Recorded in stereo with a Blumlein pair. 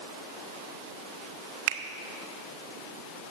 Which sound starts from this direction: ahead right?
A finger snap, at 1.7 s.